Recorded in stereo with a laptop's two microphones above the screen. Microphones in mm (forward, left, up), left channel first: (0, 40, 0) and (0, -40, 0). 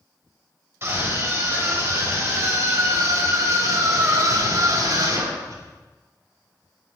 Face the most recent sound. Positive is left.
turn(degrees=-60)  # may be behind; listen again after turning